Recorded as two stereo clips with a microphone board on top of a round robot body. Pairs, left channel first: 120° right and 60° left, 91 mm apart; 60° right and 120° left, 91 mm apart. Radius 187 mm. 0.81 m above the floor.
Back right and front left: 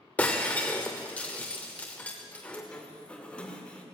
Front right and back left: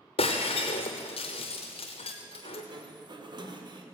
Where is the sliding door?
160° left, 2 m.